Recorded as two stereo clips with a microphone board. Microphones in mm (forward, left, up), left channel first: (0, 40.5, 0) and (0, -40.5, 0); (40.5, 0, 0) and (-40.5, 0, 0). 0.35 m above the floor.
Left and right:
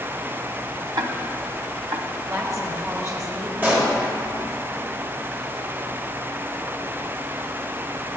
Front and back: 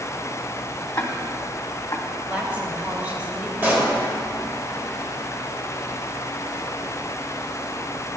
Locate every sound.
1.0 s ticking: 55° right, 0.6 m
2.3 s a woman speaking: 115° right, 1.4 m
3.6 s a pop: 135° right, 1.6 m